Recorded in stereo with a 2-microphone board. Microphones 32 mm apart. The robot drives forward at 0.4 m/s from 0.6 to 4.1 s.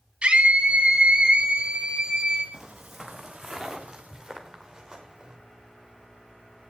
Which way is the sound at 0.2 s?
35° right (ahead or behind).